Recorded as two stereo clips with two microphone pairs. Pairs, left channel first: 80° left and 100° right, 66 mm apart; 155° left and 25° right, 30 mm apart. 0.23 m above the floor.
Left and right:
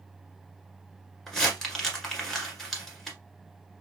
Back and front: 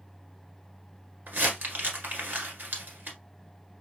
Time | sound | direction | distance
1.3 | crumpling | 5° right | 1.5 m